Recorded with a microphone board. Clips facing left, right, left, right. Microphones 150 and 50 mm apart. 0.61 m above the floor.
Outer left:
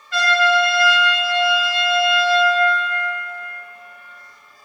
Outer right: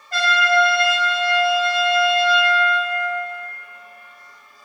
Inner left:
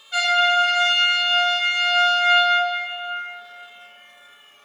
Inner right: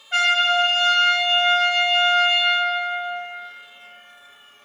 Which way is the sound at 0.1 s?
45° right (ahead or behind).